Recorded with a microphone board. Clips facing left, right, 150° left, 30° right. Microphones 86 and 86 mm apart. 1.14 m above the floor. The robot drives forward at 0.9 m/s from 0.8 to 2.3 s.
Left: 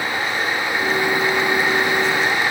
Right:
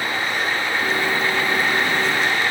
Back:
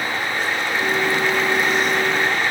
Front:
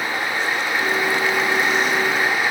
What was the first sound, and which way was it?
Only background noise.